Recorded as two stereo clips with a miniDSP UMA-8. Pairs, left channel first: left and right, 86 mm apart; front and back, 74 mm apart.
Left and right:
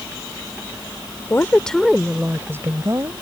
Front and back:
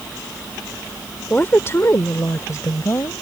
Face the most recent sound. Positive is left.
turn(degrees=-45)